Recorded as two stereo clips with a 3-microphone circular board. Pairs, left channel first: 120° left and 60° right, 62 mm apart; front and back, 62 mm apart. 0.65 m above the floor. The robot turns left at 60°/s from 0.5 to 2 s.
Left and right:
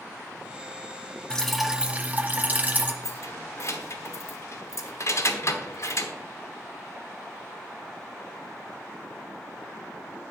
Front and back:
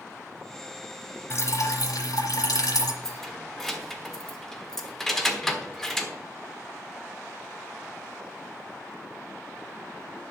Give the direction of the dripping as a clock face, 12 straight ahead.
11 o'clock.